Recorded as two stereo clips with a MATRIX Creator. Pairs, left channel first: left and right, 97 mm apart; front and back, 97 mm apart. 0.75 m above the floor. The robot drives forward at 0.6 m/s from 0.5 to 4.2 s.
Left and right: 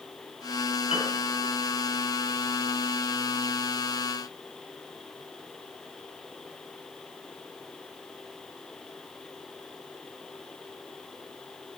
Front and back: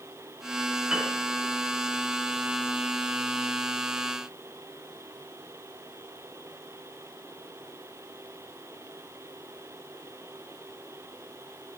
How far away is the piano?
About 6 m.